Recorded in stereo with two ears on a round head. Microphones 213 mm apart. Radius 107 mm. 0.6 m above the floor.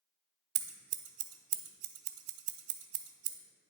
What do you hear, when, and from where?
0.6 s scissors: 65° right (ahead or behind), 0.7 m